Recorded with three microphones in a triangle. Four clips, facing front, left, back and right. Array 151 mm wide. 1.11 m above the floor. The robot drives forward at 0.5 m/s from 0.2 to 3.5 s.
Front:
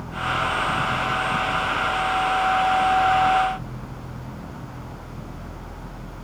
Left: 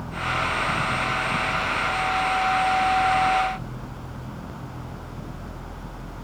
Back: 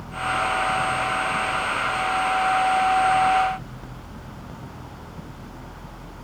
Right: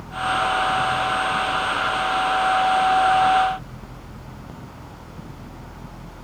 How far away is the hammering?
I don't hear hammering.